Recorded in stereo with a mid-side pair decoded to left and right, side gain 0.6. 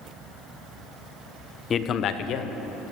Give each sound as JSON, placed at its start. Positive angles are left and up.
{"t": 1.7, "sound": "a man speaking", "azimuth_deg": 35, "distance_m": 0.5}